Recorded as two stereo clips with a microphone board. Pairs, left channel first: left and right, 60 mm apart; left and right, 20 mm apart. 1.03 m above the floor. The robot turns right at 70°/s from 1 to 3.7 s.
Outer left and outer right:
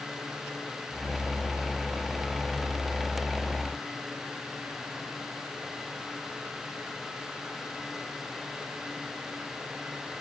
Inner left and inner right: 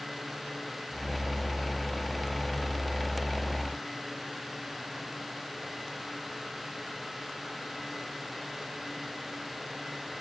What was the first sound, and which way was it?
Only background noise.